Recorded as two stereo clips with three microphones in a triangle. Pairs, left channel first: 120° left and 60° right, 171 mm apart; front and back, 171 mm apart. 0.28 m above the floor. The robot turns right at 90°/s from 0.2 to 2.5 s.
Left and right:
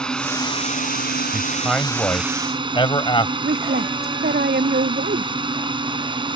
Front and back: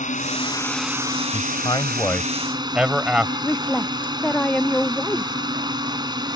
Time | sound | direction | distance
0.0 | a drone | 35° left | ?
1.3 | a man speaking | 5° right | ?
3.4 | a woman speaking | 85° right | ?